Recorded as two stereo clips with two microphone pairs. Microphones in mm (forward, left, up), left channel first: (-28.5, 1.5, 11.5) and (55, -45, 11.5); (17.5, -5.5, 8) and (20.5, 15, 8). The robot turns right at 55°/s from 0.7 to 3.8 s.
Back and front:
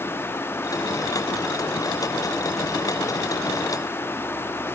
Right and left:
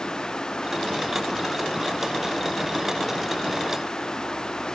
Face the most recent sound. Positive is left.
No sound to turn to.